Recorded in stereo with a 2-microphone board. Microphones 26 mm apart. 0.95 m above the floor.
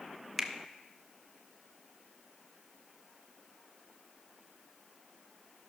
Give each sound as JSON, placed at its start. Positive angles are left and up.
{"t": 0.4, "sound": "a finger snap", "side_deg": 0, "distance_m": 1.0}